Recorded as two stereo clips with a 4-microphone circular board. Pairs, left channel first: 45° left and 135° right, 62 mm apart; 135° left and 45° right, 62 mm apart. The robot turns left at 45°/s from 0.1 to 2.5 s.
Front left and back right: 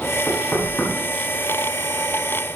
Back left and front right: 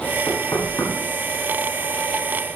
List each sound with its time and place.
0.3 s knocking: 120° left, 6 m; by 0.9 s 90° left, 6 m